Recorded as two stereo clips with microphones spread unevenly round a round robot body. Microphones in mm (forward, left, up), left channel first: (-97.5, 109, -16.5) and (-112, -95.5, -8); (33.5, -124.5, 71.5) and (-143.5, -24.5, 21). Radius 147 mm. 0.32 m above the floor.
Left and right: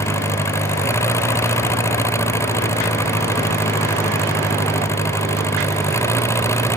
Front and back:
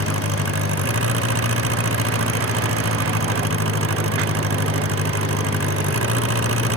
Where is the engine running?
165° left.